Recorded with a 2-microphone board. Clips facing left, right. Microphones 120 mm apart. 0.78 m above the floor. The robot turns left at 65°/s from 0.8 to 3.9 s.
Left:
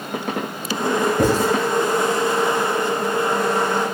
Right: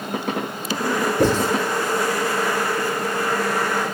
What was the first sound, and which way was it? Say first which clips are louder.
Writing: right 1 dB; 70° left (ahead or behind).